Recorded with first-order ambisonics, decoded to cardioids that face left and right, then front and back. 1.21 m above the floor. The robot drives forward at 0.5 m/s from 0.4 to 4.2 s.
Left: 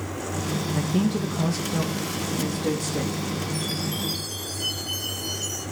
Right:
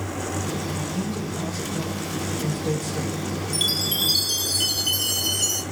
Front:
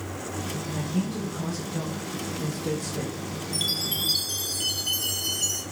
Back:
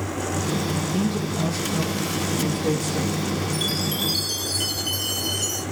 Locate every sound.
0.8 s a man speaking: 110° left, 1.2 m; by 3.2 s 145° left, 1.9 m
3.5 s a chime: 85° right, 0.9 m; by 5.6 s 110° right, 0.9 m